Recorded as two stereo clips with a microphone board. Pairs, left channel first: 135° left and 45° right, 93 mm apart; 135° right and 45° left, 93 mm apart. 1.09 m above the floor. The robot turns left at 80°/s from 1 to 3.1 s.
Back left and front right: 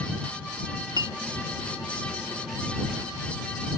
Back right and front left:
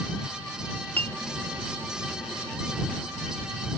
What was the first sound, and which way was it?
A clink, 70° right.